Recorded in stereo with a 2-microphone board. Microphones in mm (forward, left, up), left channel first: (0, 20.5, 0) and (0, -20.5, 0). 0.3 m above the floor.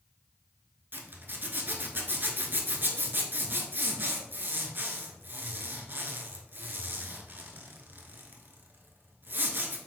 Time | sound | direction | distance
0.9 | a zipper | 55° right (ahead or behind) | 0.8 m